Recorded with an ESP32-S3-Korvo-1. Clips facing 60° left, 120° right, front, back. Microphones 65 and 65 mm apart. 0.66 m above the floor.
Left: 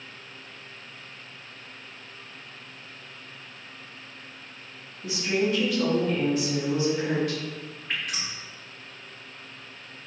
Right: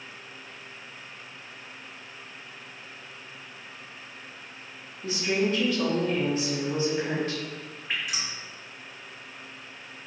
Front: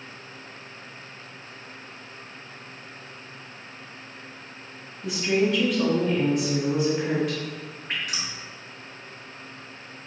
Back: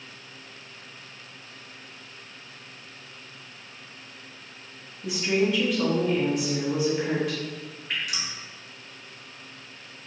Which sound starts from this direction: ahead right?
Dripping, at 7.9 s.